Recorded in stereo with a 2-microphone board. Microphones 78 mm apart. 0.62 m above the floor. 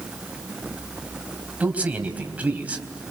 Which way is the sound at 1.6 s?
15° right (ahead or behind).